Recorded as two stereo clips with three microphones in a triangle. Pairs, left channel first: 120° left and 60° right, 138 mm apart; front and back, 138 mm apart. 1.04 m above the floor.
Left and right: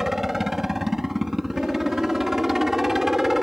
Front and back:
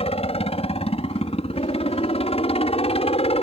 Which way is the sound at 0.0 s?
25° left.